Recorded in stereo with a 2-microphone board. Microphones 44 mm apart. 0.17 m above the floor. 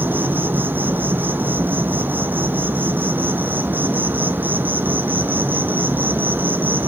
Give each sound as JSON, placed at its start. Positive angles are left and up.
{"t": 0.0, "sound": "an insect", "side_deg": -50, "distance_m": 1.3}